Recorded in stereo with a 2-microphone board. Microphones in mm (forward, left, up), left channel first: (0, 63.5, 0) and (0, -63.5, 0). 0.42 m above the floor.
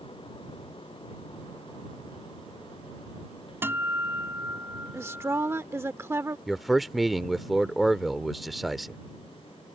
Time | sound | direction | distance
3.6 | a guitar | 20° right (ahead or behind) | ?
4.9 | a woman speaking | 20° right (ahead or behind) | ?
6.5 | a man speaking | centre (ahead or behind) | ?